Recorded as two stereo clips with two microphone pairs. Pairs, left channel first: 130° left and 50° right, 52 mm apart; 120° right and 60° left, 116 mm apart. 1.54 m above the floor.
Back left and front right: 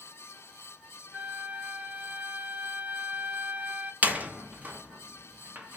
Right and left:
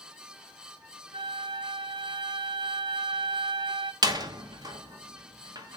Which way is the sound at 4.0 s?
5° left.